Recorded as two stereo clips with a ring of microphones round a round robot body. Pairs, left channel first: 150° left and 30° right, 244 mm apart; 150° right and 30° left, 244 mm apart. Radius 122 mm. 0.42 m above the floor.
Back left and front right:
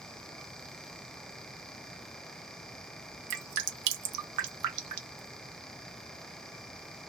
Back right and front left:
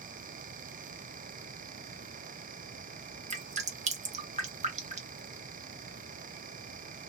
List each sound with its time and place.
3.3 s dripping: 35° right, 0.7 m